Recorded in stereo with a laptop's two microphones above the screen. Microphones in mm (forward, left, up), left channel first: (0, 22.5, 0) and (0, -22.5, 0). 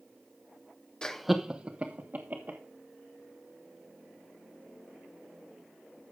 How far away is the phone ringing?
I don't hear a phone ringing.